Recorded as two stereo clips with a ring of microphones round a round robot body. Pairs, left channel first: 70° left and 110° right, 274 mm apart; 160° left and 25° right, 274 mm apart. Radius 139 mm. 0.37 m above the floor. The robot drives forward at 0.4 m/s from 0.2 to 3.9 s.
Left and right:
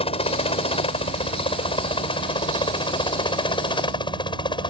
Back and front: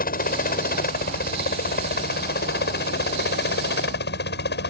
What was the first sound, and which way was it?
A helicopter, 125° left.